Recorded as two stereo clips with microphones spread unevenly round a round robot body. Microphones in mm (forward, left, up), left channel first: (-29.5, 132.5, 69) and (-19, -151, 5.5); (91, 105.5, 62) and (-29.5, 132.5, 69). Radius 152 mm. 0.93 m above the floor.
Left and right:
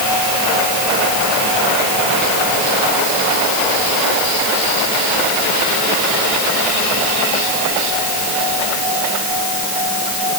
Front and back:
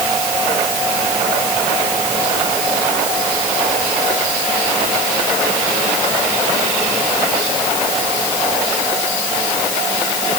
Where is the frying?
No frying in this recording.